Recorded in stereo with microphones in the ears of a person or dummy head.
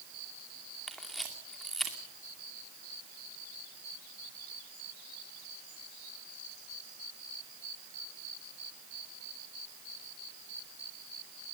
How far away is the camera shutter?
About 2.5 m.